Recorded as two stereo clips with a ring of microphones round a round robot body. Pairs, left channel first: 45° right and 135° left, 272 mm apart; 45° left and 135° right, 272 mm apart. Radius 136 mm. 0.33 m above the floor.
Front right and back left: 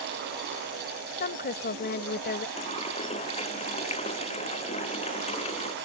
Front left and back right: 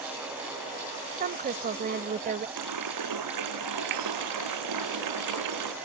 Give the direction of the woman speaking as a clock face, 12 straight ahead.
3 o'clock.